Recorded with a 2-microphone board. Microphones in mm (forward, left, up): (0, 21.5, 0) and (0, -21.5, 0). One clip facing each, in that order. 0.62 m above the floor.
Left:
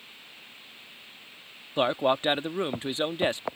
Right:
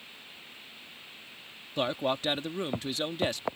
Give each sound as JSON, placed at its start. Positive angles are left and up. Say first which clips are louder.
{"t": 1.8, "sound": "a man speaking", "louder": "left 5 dB", "side_deg": 25}